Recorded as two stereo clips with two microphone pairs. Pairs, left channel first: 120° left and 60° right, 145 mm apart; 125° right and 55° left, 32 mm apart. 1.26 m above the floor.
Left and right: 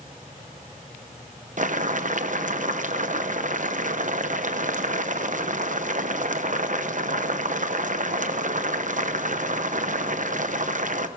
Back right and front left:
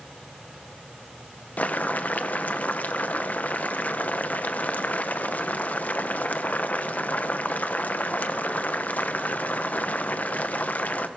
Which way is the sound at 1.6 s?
90° right.